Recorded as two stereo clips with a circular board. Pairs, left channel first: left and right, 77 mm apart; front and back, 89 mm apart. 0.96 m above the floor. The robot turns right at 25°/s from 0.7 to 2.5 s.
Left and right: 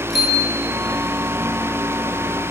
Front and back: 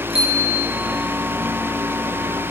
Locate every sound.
0.1 s a bicycle bell: 175° right, 9.5 m